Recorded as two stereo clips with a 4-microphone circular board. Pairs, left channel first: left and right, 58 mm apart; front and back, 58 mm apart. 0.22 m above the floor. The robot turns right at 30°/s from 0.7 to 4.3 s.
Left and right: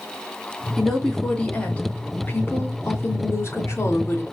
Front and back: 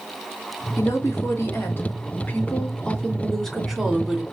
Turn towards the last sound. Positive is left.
turn(degrees=105)